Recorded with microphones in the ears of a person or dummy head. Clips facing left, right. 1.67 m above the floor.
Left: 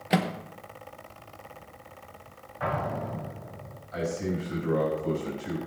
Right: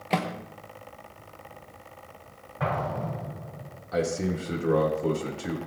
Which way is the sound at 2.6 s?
45° right (ahead or behind).